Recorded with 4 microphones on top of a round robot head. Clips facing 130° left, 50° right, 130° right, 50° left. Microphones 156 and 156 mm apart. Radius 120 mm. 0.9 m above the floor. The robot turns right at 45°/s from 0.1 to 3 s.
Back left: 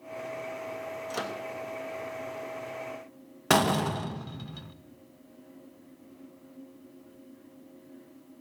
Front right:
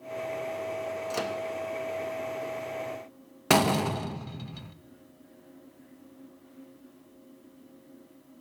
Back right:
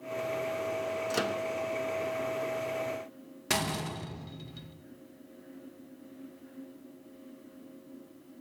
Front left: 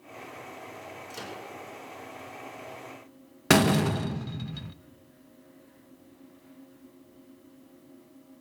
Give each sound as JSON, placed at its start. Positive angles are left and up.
{"t": 1.1, "sound": "a microwave", "azimuth_deg": -135, "distance_m": 1.2}
{"t": 3.5, "sound": "a door slam", "azimuth_deg": 30, "distance_m": 0.6}